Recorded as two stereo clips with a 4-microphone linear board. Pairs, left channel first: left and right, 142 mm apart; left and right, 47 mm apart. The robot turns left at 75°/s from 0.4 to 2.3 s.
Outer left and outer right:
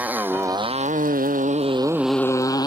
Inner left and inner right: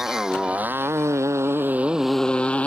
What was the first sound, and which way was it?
A motorcycle, 10° right (ahead or behind).